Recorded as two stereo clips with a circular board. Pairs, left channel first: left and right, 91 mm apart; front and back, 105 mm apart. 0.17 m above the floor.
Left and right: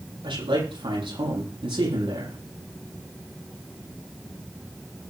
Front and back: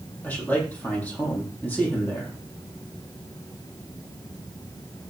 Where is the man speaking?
75° right, 7.5 m.